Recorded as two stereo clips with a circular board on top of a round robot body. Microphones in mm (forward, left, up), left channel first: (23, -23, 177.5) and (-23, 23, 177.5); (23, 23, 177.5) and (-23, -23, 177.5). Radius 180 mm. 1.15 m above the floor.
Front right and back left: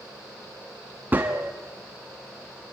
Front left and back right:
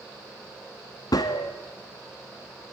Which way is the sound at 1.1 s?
70° left.